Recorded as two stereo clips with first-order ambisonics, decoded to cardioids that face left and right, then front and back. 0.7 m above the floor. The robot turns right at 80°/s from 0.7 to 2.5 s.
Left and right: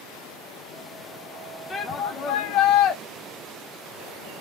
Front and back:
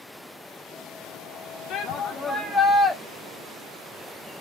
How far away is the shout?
About 0.9 m.